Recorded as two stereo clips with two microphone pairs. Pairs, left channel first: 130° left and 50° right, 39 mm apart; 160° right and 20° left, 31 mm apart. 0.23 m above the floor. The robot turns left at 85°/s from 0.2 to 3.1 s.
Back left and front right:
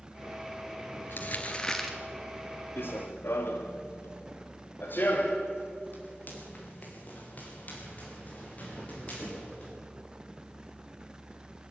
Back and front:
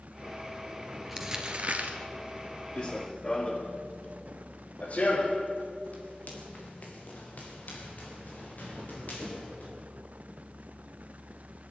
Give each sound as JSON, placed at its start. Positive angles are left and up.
{"t": 1.1, "sound": "crumpling", "azimuth_deg": 110, "distance_m": 2.5}
{"t": 2.8, "sound": "running footsteps", "azimuth_deg": 150, "distance_m": 1.9}